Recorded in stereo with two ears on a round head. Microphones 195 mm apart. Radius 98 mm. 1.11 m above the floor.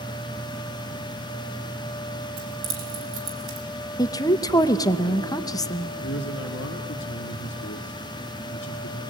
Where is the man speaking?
60° left (ahead or behind), 2 m.